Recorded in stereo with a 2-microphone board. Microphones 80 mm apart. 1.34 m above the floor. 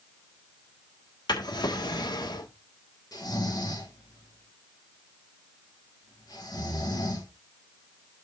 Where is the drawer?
65° left (ahead or behind), 1.5 m.